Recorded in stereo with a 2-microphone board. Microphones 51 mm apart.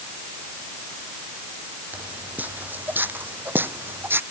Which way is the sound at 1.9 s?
30° right (ahead or behind).